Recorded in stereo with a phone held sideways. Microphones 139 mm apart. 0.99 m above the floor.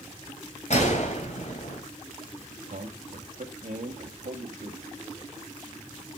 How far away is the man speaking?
About 1.8 m.